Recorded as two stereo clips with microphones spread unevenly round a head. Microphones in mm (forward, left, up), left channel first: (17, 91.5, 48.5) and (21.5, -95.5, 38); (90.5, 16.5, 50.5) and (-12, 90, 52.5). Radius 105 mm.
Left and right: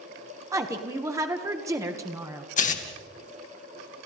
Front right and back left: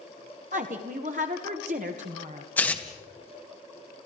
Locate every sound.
0.5 s a woman speaking: 165° right, 1.6 m
2.6 s tearing paper: 40° left, 2 m